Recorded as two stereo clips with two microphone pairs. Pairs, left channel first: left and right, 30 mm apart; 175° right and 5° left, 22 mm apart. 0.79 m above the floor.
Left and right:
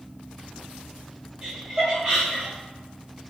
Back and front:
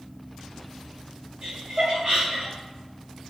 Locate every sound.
1.4 s laughter: 20° right, 1.3 m